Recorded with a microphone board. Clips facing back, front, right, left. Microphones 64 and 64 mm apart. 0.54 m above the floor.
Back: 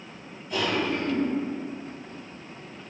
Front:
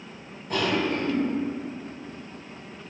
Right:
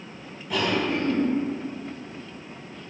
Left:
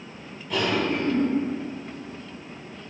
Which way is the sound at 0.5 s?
10° right.